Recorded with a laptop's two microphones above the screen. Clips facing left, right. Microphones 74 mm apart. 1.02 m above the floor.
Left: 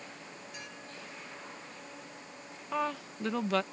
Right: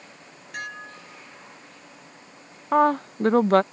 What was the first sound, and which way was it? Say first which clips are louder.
Dishes clattering: right 15 dB; 65° right (ahead or behind).